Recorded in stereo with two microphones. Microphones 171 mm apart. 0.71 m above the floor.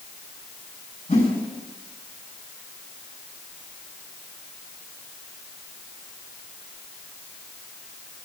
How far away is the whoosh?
About 3.5 m.